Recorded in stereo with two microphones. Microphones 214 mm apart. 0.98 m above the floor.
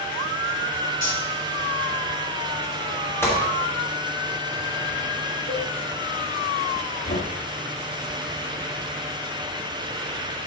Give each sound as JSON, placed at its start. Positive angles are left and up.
{"t": 1.0, "sound": "cutlery clinking", "side_deg": 80, "distance_m": 4.0}
{"t": 3.2, "sound": "a gunshot", "side_deg": 10, "distance_m": 2.5}
{"t": 5.5, "sound": "a cowbell", "side_deg": 65, "distance_m": 2.5}
{"t": 7.1, "sound": "knocking", "side_deg": 70, "distance_m": 1.3}